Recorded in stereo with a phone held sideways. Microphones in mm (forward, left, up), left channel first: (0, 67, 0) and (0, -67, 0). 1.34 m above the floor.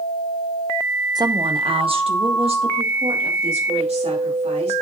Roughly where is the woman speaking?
Right.